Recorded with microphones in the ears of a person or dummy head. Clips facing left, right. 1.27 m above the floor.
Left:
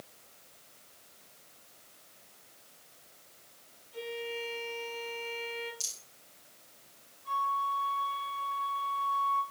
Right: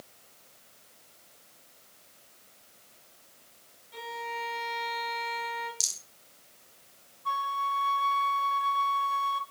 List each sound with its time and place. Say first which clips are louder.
3.9 s a violin: left 2 dB; 85° right, 6.5 m
5.8 s a rattle: right 1 dB; 85° right, 3 m
7.2 s a flute: right 1 dB; 75° right (ahead or behind), 1.7 m